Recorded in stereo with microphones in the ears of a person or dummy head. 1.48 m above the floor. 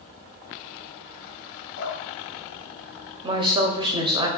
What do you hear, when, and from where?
1.8 s dripping: 75° left (ahead or behind), 1.1 m
3.2 s a woman speaking: 25° right (ahead or behind), 0.6 m